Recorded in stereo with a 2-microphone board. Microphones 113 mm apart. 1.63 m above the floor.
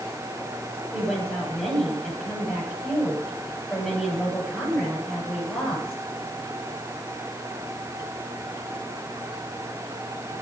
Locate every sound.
0.9 s a woman speaking: centre (ahead or behind), 8.5 m